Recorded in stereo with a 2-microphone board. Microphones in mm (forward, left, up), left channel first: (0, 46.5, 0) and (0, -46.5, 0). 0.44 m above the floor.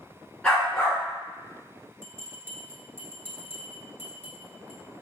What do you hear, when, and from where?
0.4 s a dog barking: 10° left (ahead or behind), 1.7 m
2.0 s a bell: 25° right (ahead or behind), 1.1 m